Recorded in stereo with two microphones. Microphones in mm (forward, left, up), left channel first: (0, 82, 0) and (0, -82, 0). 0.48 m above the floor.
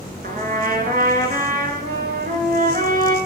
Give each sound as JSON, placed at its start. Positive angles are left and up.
{"t": 0.2, "sound": "a trumpet", "side_deg": -60, "distance_m": 2.5}